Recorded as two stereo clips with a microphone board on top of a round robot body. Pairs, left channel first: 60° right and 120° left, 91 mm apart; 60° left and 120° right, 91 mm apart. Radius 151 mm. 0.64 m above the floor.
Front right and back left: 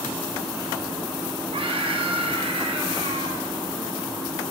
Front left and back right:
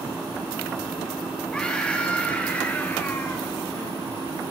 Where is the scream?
140° left, 5.5 m; by 3.5 s 130° left, 5.5 m.